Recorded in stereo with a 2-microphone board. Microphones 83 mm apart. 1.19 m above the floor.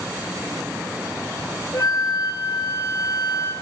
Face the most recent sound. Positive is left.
turn(degrees=60)  # may be behind; listen again after turning